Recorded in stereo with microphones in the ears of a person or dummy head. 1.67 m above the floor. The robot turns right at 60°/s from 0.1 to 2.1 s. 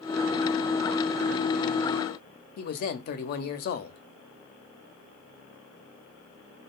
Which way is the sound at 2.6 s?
55° left (ahead or behind).